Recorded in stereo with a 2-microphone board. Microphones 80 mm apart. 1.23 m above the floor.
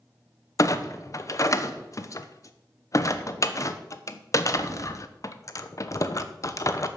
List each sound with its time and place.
0.6 s a clunk: 45° left (ahead or behind), 0.8 m